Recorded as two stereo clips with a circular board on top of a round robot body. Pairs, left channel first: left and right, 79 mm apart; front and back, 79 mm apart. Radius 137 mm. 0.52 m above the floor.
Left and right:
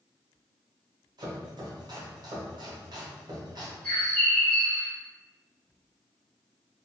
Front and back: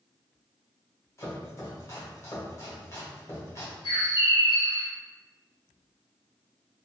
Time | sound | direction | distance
1.2 | chopping | 55° right | 0.9 m
3.8 | a bird | 15° left | 1.3 m